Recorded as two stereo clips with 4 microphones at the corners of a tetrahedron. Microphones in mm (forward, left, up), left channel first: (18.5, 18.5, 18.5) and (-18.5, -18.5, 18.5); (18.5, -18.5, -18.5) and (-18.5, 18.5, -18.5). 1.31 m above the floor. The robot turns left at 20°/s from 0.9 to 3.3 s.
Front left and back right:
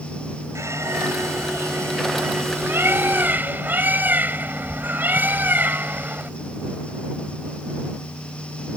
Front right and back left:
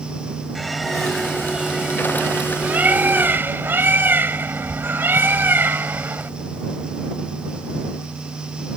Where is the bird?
135° right; by 6.3 s 175° left.